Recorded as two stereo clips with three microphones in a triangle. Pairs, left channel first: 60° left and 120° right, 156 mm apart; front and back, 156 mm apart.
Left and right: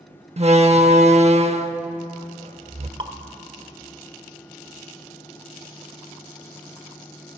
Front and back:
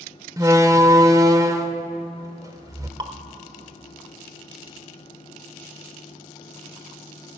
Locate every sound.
0.4 s a door slam: 125° right, 0.7 m
3.0 s dripping: 145° right, 0.8 m